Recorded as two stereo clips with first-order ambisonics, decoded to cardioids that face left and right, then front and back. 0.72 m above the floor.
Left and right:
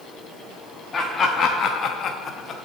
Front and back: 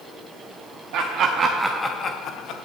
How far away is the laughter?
About 0.9 m.